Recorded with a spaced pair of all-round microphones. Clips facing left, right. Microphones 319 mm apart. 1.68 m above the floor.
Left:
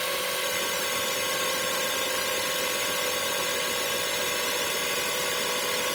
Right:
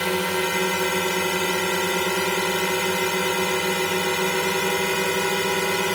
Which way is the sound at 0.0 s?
75° right (ahead or behind).